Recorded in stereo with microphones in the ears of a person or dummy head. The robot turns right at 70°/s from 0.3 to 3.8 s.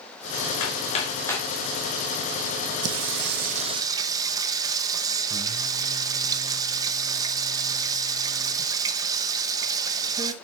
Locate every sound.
0.6 s hammering: 65° left (ahead or behind), 1.9 m; by 1.5 s 5° left (ahead or behind), 1.9 m
2.8 s singing: 90° right, 0.9 m; by 10.3 s 25° right, 0.9 m